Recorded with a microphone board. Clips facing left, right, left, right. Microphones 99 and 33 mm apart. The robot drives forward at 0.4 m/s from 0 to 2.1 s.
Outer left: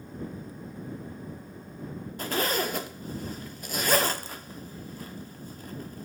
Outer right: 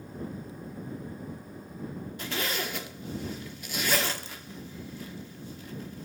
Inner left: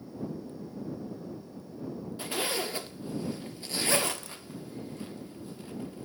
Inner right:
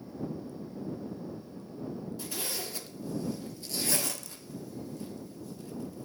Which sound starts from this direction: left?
A zipper, at 2.2 s.